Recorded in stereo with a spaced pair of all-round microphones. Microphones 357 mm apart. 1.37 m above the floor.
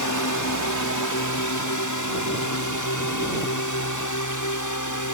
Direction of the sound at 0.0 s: 55° left (ahead or behind).